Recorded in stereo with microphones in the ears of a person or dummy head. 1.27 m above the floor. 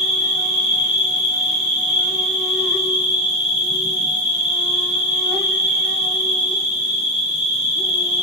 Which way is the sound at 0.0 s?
5° right (ahead or behind).